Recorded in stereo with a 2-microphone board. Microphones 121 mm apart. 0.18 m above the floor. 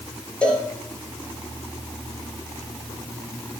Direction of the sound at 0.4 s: 10° left (ahead or behind).